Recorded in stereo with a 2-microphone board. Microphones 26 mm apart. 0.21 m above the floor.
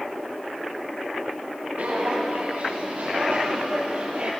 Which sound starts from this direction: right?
Footsteps, at 1.8 s.